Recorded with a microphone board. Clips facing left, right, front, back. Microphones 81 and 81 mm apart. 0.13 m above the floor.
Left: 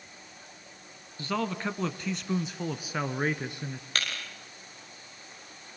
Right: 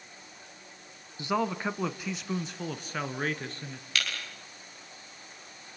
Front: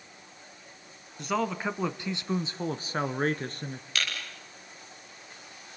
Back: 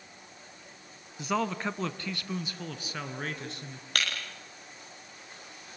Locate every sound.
1.2 s a man speaking: 100° right, 1.1 m; by 3.9 s 25° left, 1.7 m
4.0 s breaking glass: 140° left, 10 m